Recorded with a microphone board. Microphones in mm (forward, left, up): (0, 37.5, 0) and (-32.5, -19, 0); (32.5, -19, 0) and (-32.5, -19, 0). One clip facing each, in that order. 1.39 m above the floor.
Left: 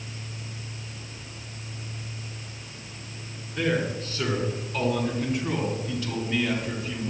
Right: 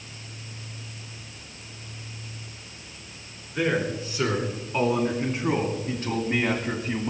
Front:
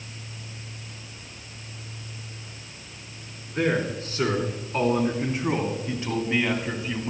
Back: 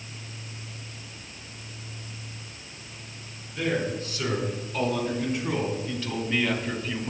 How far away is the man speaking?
About 4.5 m.